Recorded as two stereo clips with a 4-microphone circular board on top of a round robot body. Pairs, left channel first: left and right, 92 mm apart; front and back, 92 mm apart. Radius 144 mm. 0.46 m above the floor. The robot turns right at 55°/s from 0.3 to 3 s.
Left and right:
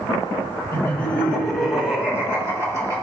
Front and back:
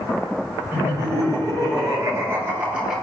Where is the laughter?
130° left, 1.5 m; by 3.0 s 100° right, 1.5 m.